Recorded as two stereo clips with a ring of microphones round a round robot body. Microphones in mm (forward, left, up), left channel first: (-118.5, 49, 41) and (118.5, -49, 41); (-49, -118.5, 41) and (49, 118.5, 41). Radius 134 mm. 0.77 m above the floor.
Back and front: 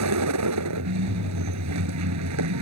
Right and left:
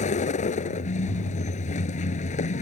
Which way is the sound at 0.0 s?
50° right.